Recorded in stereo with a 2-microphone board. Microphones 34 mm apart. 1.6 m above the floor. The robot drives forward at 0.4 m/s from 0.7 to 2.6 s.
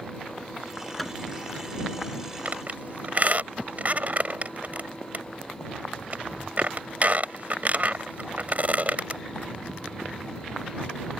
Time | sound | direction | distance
1.0 | hammering | 10° left (ahead or behind) | ?
2.5 | a squeak | 45° right (ahead or behind) | ?